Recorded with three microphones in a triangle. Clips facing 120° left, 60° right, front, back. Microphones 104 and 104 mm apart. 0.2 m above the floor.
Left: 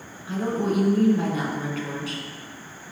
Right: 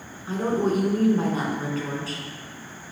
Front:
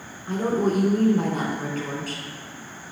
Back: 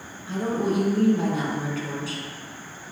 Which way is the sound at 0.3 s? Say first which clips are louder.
Right 2 dB, front 2 dB; 20° right.